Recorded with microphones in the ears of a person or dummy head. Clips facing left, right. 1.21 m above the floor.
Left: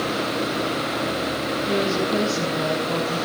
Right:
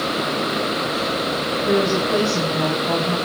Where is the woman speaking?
80° right, 7.5 m.